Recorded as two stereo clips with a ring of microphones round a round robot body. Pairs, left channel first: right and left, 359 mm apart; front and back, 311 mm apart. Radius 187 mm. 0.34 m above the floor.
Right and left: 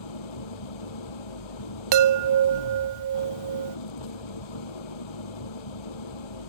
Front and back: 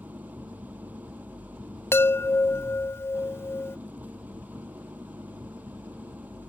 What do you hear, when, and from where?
0.0 s an engine running: 95° right
1.9 s a chime: 80° left